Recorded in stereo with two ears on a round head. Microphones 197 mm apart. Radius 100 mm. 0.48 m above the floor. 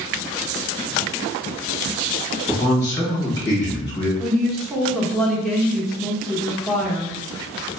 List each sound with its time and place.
2.5 s a man speaking: 20° left (ahead or behind), 1.8 m
4.2 s a woman speaking: centre (ahead or behind), 0.8 m